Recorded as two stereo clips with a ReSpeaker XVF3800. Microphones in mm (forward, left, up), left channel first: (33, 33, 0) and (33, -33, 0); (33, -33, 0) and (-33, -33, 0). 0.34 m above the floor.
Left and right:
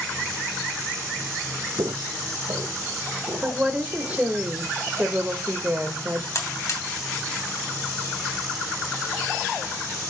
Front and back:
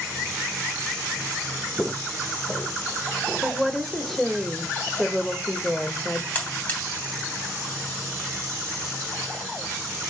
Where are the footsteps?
75° right, 0.7 m; by 4.3 s 65° right, 3.5 m.